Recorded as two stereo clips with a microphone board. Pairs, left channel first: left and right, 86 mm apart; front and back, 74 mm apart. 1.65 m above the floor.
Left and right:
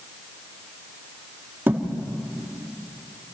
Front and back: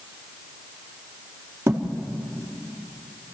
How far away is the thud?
About 1.5 m.